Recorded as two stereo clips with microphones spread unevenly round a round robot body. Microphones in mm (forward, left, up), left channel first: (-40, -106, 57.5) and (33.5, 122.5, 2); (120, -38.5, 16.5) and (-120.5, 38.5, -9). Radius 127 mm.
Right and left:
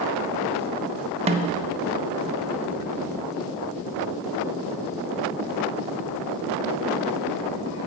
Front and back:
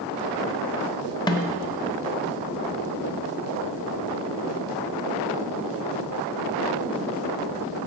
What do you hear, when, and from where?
1.3 s a snare drum: 55° left, 0.7 m